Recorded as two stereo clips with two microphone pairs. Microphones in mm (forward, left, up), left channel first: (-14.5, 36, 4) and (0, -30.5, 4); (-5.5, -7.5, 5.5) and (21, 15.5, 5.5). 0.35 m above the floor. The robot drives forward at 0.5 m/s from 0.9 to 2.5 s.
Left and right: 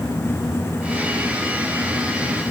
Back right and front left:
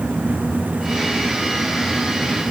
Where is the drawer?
No drawer in this recording.